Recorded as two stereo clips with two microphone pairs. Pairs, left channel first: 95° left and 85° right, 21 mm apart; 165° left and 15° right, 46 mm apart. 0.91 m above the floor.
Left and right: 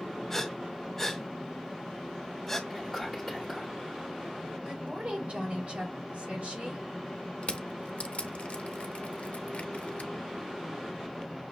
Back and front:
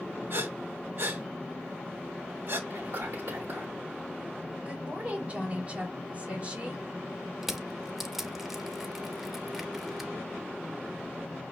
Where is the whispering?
10° right, 1.2 m.